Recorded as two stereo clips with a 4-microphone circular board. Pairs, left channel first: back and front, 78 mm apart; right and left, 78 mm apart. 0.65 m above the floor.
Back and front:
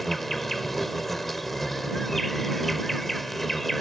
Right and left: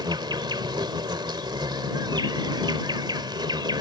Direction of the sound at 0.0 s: 90° left.